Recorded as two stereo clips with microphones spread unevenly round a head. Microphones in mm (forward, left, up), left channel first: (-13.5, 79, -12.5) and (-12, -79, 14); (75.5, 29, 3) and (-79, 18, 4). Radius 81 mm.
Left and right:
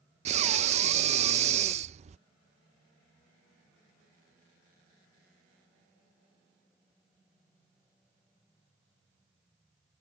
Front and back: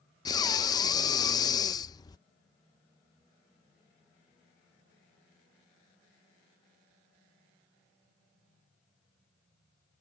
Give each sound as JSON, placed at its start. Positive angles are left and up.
{"t": 0.2, "sound": "breathing", "azimuth_deg": -50}